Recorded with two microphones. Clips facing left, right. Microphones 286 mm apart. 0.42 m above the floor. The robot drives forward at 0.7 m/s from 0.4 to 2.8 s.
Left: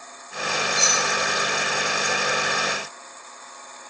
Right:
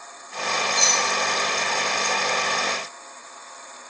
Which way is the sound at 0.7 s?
40° right (ahead or behind).